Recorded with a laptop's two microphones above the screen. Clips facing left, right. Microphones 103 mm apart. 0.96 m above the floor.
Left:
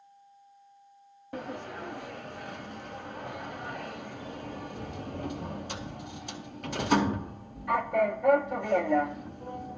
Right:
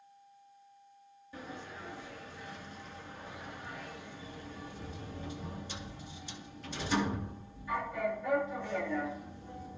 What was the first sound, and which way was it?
A sliding door, 60° left (ahead or behind).